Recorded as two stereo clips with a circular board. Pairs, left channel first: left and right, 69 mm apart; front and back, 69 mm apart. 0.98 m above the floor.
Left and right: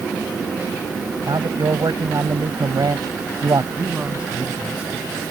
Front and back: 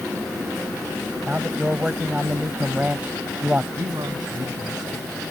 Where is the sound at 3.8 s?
165° right.